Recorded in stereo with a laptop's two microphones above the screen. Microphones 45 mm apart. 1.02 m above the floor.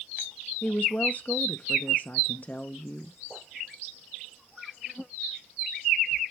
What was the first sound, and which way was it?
A woman speaking, 35° left (ahead or behind).